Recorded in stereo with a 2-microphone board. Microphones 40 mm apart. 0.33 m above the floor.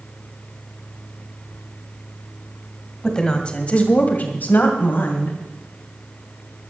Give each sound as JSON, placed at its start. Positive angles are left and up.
{"t": 3.0, "sound": "a woman speaking", "side_deg": 15, "distance_m": 2.0}